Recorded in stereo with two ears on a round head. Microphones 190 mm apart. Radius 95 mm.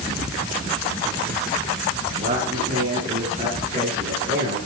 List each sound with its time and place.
2.2 s a man speaking: 40° right (ahead or behind), 8 m; by 4.6 s 30° right (ahead or behind), 11.5 m